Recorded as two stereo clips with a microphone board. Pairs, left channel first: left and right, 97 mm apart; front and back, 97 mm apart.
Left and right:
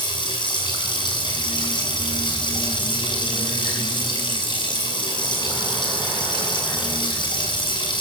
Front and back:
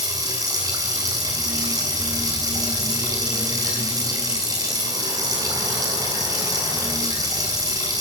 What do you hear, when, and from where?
0.0 s running water: 125° left, 7.5 m